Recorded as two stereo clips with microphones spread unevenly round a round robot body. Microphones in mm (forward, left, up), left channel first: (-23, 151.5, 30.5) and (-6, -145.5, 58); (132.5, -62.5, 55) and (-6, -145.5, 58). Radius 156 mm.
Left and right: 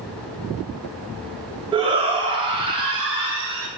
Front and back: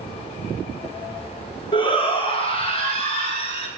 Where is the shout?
15° right, 2.0 m.